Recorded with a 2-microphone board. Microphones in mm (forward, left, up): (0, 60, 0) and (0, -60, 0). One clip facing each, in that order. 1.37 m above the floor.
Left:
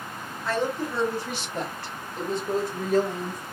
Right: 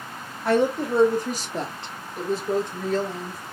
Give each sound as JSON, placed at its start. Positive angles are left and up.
{"t": 0.5, "sound": "a woman speaking", "side_deg": -65, "distance_m": 1.0}